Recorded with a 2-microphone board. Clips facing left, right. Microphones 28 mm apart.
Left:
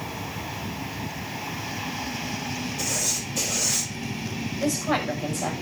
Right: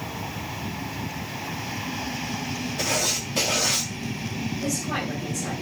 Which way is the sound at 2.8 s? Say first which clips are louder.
Right 5 dB; 50° right (ahead or behind).